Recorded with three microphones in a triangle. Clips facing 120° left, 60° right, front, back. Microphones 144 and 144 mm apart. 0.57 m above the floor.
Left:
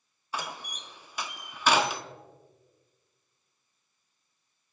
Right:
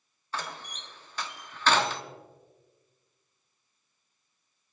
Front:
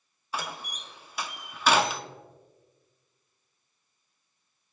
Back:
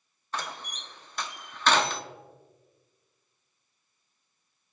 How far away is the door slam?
About 0.8 m.